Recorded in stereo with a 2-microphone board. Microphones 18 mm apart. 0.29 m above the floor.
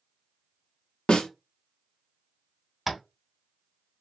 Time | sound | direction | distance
1.1 | a snare drum | 65° left (ahead or behind) | 0.6 m
2.9 | tapping | 5° right (ahead or behind) | 0.5 m